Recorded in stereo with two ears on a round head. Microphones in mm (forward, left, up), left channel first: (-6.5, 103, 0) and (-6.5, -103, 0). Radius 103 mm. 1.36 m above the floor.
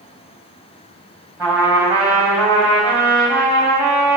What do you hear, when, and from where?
1.4 s a trumpet: 10° right (ahead or behind), 4.5 m